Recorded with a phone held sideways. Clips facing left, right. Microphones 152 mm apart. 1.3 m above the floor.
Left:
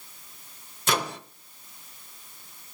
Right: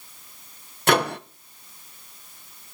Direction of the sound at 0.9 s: 70° right (ahead or behind).